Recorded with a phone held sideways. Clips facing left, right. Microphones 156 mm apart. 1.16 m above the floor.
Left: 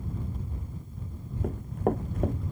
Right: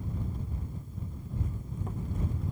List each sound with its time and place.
1.4 s running footsteps: 65° left (ahead or behind)